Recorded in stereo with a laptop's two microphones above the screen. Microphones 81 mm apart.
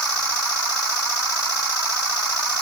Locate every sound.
Only background noise.